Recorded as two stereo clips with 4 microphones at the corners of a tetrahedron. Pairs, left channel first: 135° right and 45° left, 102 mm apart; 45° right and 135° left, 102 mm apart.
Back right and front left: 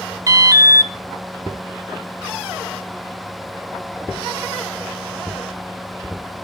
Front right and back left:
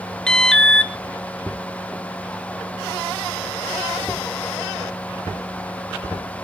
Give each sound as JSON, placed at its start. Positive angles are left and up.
{"t": 0.3, "sound": "an alarm", "azimuth_deg": 30, "distance_m": 0.9}